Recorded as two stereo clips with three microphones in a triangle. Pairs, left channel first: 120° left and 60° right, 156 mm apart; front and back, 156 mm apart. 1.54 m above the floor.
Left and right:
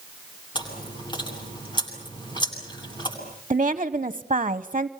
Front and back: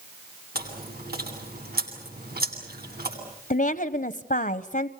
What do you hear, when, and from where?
0.6 s chewing: straight behind, 8.5 m
3.5 s a woman speaking: 15° right, 0.8 m